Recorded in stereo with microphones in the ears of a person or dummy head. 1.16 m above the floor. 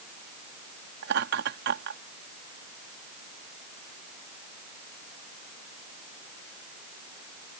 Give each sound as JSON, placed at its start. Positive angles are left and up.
{"t": 1.0, "sound": "laughter", "side_deg": -60}